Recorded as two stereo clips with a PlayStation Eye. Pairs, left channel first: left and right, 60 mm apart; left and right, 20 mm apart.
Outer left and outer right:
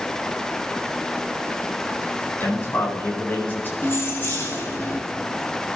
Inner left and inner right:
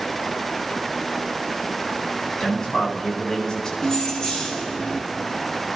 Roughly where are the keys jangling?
Left.